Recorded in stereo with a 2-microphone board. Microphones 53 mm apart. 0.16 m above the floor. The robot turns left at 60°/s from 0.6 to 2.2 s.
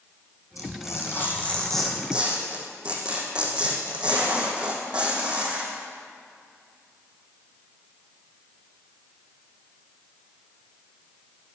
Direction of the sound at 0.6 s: 75° left.